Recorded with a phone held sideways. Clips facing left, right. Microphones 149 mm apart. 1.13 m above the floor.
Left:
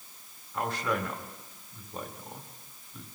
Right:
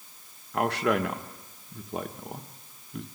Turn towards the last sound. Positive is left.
turn(degrees=-65)  # may be behind; listen again after turning